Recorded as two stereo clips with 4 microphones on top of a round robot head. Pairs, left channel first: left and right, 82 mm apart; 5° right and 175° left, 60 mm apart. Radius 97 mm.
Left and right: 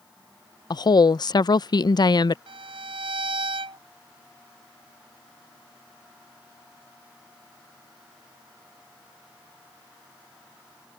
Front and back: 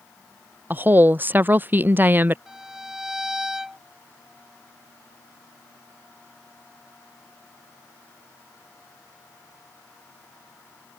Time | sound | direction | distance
0.7 | a woman speaking | 120° left | ?
2.5 | a violin | 100° right | ?